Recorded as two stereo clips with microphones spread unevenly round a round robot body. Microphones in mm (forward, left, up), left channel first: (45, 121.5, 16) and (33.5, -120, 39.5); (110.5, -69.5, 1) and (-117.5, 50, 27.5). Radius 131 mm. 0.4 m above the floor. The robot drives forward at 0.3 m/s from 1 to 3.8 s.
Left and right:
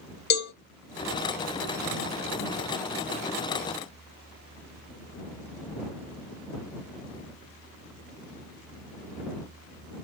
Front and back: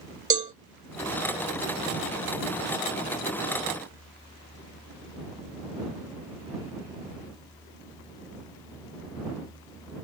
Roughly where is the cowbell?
Left.